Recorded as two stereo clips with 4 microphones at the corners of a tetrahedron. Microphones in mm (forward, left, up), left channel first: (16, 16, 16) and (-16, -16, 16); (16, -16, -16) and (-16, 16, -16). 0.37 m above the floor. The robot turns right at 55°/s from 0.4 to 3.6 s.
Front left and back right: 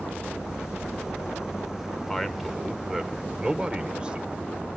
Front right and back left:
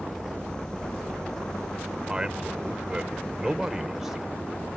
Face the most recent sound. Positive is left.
turn(degrees=-155)